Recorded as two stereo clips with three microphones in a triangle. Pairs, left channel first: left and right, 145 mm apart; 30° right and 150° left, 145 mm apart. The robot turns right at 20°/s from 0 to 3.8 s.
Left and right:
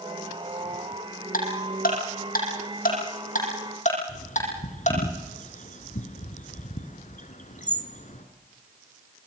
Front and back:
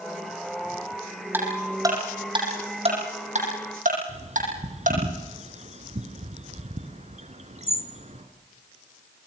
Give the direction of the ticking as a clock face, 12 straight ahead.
9 o'clock.